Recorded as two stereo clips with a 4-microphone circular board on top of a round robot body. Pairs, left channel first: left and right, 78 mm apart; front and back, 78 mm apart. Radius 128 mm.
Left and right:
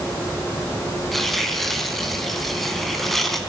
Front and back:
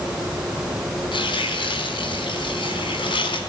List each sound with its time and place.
1.1 s tearing paper: straight ahead, 4 m